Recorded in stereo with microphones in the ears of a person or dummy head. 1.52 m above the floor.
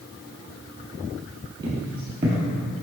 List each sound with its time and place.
1.6 s footsteps: 25° right (ahead or behind), 1.8 m